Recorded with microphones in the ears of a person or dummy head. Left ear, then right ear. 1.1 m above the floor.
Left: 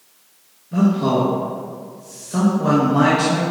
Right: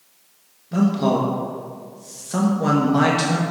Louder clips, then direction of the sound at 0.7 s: Left 1 dB; 35° right (ahead or behind).